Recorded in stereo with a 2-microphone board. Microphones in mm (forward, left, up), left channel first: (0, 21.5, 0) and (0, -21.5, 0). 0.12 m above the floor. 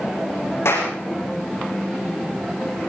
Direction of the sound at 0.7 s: 75° left (ahead or behind).